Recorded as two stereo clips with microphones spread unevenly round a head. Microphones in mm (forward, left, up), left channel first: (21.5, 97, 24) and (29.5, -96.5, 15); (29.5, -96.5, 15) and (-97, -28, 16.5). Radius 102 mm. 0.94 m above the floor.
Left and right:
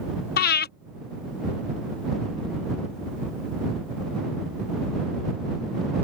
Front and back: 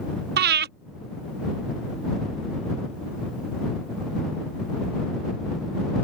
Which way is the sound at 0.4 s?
140° left.